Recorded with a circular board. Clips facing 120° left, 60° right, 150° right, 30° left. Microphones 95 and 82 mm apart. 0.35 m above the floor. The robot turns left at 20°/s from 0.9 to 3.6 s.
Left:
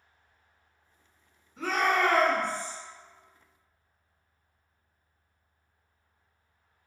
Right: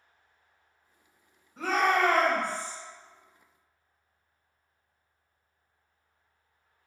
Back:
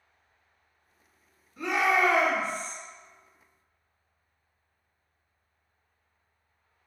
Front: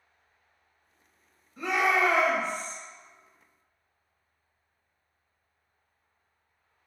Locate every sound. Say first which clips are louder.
1.6 s a shout: right 1 dB, even; 60° right, 1.8 m; by 2.8 s 85° right, 1.8 m